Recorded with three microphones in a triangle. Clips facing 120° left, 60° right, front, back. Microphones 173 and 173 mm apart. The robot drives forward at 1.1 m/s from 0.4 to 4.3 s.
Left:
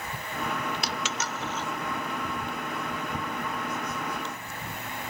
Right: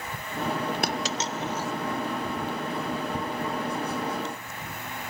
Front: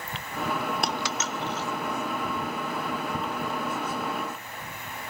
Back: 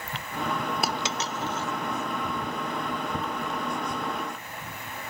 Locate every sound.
0.8 s a dropped coin: 95° right, 0.8 m; by 1.7 s 140° right, 1.3 m